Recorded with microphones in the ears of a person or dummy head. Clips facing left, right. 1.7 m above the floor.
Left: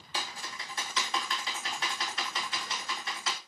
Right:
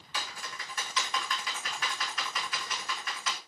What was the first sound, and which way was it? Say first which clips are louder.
Typing on a keyboard: left 1 dB; 30° left (ahead or behind).